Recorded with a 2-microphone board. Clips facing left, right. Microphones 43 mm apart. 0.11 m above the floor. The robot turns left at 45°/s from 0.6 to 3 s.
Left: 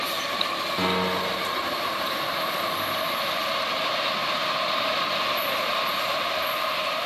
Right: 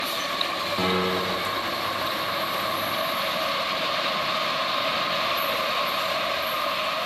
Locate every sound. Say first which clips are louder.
0.8 s a piano: right 1 dB; 5° left, 4 m; by 1.6 s 30° right, 4 m